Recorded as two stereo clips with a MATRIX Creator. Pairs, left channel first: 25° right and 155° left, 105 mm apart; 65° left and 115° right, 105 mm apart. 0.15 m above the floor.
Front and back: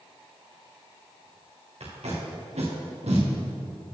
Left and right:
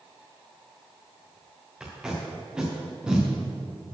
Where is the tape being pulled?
165° left, 3 m.